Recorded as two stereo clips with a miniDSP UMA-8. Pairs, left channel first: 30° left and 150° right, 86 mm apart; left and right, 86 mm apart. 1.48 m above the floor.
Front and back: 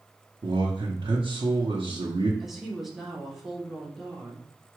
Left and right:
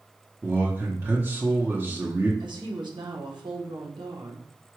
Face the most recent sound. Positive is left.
turn(degrees=-65)